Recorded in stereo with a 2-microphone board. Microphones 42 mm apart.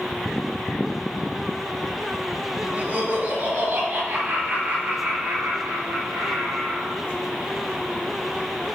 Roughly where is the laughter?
Right.